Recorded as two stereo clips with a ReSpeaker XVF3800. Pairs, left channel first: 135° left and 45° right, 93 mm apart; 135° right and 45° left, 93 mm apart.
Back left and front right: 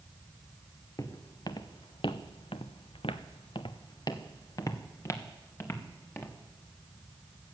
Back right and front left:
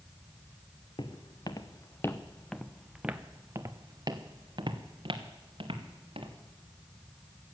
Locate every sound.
1.0 s footsteps: 175° right, 1.3 m; by 6.3 s 65° left, 2 m